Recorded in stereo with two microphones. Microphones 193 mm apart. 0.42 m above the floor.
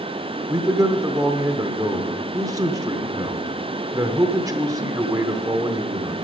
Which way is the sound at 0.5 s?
20° right (ahead or behind).